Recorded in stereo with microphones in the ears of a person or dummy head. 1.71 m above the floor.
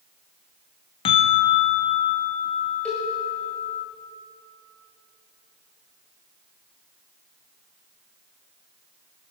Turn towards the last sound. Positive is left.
turn(degrees=5)  # may be behind; listen again after turning